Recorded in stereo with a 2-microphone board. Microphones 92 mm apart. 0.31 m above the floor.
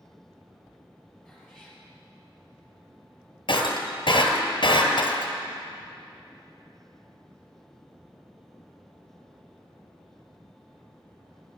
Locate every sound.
1.2 s a cat meowing: centre (ahead or behind), 3.5 m
3.5 s breaking glass: 60° left (ahead or behind), 1.5 m